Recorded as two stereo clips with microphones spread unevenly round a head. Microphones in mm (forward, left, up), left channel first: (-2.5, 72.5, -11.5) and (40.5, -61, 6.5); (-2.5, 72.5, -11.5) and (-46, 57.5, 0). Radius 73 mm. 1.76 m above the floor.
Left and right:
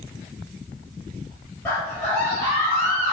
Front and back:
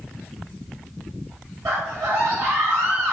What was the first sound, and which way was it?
A scream, 170° right.